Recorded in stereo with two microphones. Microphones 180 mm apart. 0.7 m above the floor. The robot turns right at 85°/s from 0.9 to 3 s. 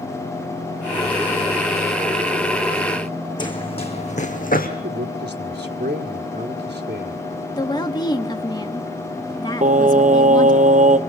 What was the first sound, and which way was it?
Running footsteps, 25° left (ahead or behind).